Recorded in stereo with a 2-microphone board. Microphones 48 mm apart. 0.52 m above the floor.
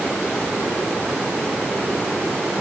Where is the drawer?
No drawer in this recording.